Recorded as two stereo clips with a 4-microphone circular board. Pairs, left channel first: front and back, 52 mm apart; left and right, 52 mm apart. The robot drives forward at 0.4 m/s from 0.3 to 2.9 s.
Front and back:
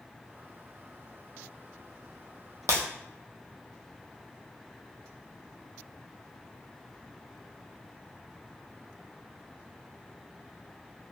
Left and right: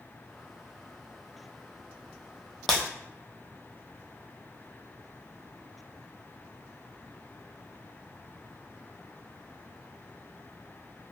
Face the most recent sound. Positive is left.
turn(degrees=175)